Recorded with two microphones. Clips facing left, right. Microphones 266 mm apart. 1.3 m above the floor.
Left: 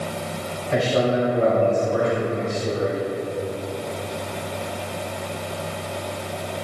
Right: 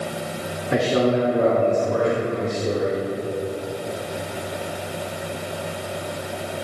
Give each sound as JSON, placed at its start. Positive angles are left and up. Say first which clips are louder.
{"t": 0.7, "sound": "a man speaking", "louder": "right 2 dB", "side_deg": -65, "distance_m": 2.5}